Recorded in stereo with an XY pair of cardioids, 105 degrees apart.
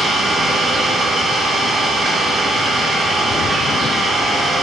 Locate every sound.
0.0 s an engine running: 40° right, 1.5 m